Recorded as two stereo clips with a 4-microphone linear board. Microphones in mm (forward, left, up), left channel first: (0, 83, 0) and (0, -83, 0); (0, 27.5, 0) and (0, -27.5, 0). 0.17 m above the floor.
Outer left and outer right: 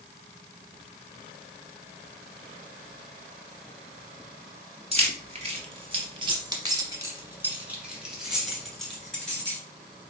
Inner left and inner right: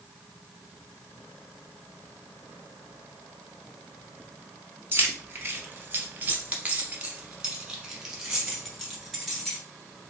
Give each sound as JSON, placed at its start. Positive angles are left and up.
{"t": 4.9, "sound": "keys jangling", "side_deg": -40, "distance_m": 1.2}